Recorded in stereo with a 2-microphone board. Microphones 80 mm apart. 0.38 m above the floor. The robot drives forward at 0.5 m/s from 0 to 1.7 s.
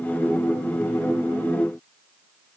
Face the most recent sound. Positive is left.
No sound to turn to.